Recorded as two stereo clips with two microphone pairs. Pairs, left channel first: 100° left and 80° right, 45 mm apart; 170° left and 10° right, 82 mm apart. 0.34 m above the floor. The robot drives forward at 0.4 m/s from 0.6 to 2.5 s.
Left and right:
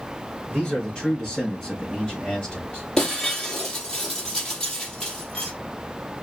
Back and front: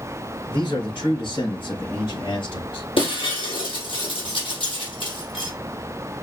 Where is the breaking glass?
Straight behind, 2.5 m.